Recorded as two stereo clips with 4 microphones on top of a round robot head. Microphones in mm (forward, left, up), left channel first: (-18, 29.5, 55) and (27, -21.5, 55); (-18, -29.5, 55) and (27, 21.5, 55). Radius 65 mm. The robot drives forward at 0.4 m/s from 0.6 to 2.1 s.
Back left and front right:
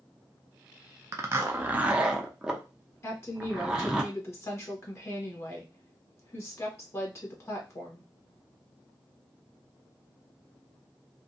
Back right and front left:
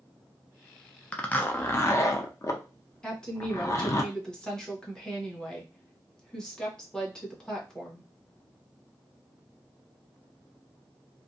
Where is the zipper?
65° right, 0.6 m; by 4.0 s 120° right, 0.6 m.